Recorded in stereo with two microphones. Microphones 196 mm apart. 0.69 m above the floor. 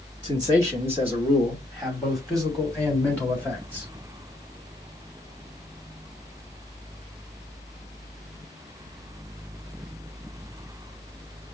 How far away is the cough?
I don't hear a cough.